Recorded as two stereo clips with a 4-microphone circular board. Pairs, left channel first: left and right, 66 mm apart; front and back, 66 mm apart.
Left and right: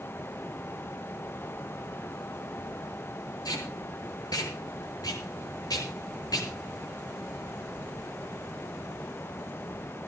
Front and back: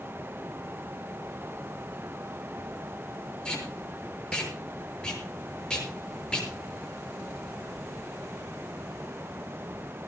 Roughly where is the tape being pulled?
Left.